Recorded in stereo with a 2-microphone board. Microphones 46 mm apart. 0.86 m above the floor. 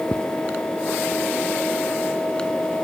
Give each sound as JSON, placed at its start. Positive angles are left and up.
{"t": 0.1, "sound": "footsteps", "side_deg": 35}